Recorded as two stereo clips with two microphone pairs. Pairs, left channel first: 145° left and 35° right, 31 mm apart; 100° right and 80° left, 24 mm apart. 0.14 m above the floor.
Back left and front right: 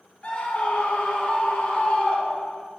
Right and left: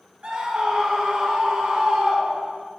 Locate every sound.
0.2 s a scream: 100° left, 2 m